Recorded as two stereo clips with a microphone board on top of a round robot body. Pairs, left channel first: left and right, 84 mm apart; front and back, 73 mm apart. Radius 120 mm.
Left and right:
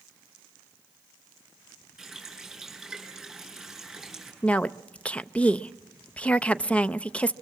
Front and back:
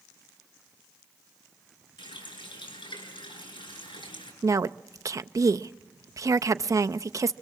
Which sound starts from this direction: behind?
A woman speaking, at 4.4 s.